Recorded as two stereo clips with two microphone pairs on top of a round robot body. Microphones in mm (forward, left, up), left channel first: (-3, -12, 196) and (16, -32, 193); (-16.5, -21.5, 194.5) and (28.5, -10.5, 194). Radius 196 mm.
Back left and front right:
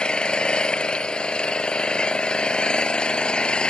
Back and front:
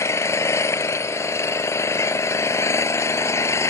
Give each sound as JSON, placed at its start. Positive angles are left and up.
{"t": 0.0, "sound": "an engine running", "azimuth_deg": -170}